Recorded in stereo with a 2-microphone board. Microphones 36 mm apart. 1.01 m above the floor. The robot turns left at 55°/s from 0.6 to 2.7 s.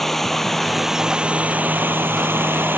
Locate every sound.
0.0 s running water: 5° left; by 2.8 s 110° right